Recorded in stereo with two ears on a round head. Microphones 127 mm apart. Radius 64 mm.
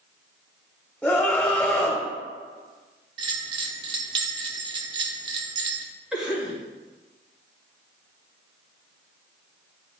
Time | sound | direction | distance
1.0 | a scream | centre (ahead or behind) | 0.8 m
3.2 | a bell | 35° right (ahead or behind) | 0.6 m
6.1 | a cough | 5° right (ahead or behind) | 2.5 m